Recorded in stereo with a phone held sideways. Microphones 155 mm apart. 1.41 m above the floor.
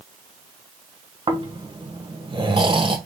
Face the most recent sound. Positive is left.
turn(degrees=-30)  # may be behind; listen again after turning